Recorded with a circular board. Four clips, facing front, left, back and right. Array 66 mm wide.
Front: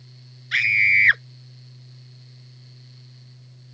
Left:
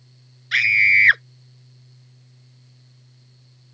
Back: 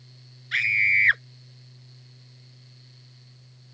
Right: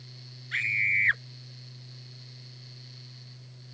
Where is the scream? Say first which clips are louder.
Left 11 dB, front 3 dB; 65° left.